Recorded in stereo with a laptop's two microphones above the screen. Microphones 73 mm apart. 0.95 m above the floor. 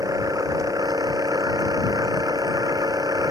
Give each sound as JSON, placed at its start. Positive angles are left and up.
{"t": 0.0, "sound": "a machine running", "side_deg": -55}